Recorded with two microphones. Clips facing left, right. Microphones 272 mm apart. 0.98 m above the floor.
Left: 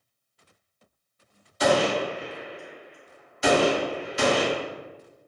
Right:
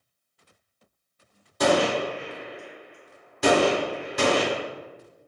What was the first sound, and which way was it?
A gunshot, 55° right (ahead or behind).